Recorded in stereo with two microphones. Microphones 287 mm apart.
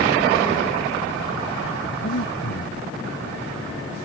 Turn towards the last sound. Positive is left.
turn(degrees=70)  # may be behind; listen again after turning